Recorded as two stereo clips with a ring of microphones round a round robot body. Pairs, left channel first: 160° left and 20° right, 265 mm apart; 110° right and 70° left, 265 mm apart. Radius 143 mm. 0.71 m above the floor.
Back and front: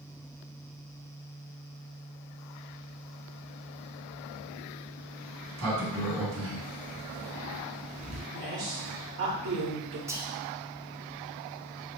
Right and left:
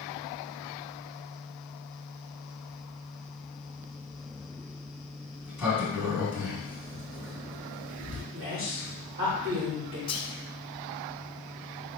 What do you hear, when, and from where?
5.4 s a sliding door: 15° right, 2.5 m
8.3 s a woman speaking: 15° left, 1.9 m
10.1 s whispering: 85° right, 0.6 m